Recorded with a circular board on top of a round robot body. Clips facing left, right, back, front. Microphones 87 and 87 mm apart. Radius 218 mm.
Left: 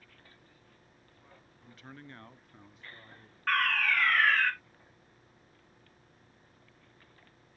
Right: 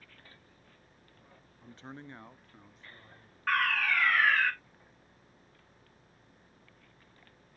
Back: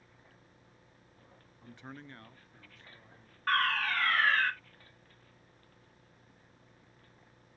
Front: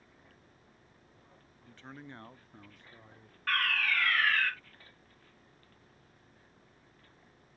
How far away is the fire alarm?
About 1.9 m.